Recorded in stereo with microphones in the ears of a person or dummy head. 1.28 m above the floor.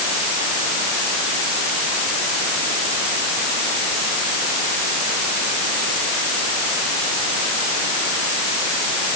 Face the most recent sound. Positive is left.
No sound to turn to.